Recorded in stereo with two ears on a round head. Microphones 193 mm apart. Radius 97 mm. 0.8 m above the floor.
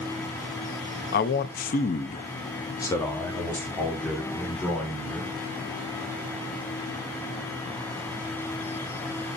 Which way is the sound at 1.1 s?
45° left (ahead or behind).